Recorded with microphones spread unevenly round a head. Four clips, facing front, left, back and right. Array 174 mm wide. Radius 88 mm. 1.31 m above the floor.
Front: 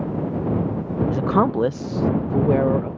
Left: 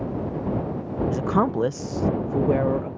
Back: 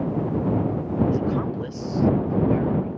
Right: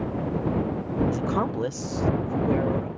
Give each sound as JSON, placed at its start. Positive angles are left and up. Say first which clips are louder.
{"t": 1.1, "sound": "a woman speaking", "louder": "left 4 dB, front 5 dB", "azimuth_deg": 15}